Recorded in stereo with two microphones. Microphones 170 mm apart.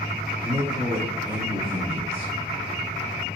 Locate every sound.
0.4 s a man speaking: 50° right (ahead or behind), 2.5 m